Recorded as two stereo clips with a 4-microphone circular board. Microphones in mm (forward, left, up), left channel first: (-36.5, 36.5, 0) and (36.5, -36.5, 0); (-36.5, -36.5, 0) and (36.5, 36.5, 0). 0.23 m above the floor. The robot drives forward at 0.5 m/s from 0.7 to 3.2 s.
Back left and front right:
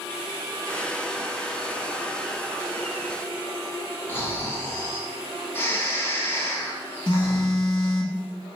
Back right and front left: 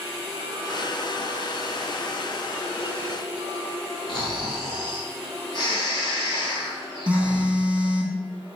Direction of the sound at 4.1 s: 160° right.